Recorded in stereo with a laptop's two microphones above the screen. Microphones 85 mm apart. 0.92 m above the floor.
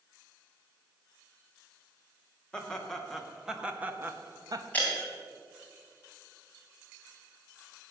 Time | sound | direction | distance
2.5 | laughter | 10° left (ahead or behind) | 1.6 m
4.7 | breaking glass | 20° left (ahead or behind) | 3 m